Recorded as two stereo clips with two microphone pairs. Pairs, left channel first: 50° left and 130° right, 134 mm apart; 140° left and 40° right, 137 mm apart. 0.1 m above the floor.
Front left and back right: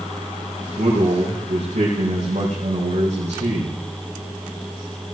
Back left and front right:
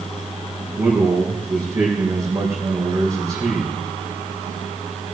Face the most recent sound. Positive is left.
turn(degrees=-100)